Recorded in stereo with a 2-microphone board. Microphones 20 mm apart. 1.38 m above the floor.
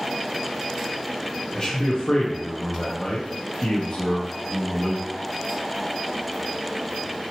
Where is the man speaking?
35° left (ahead or behind), 0.7 m.